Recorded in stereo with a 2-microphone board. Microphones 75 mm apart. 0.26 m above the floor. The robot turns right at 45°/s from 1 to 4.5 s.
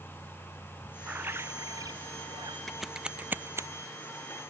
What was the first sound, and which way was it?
A bird, 160° right.